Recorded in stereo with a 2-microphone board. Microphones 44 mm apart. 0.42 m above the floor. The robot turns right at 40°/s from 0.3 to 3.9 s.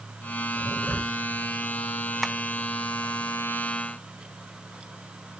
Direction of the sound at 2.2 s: Centre (ahead or behind).